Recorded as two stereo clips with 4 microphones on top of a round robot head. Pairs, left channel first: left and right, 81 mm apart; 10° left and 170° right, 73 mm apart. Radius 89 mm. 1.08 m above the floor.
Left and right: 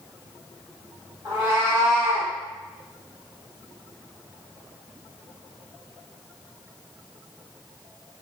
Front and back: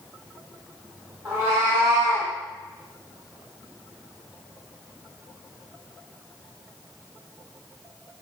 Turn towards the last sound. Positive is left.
turn(degrees=-175)